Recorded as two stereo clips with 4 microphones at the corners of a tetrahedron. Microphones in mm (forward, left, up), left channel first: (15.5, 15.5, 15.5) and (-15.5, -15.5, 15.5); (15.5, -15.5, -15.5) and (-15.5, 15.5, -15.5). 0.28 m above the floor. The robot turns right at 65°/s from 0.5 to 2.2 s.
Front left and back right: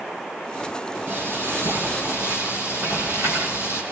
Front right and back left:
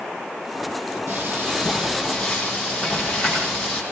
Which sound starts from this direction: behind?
Frying, at 1.1 s.